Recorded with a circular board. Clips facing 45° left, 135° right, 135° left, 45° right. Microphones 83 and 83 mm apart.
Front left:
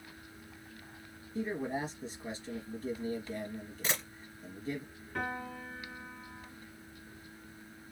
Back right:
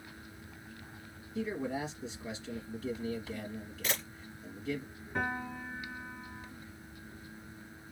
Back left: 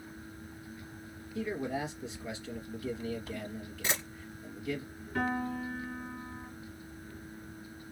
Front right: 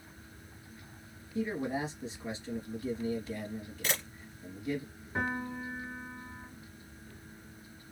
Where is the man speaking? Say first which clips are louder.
Even, front right 1 dB; 10° left, 2 m.